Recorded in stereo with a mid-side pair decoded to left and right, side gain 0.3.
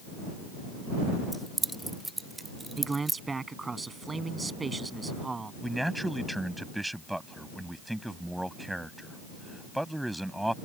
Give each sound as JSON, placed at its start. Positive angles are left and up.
{"t": 1.3, "sound": "keys jangling", "azimuth_deg": -5}
{"t": 2.8, "sound": "a man speaking", "azimuth_deg": -40}
{"t": 5.6, "sound": "a man speaking", "azimuth_deg": -10}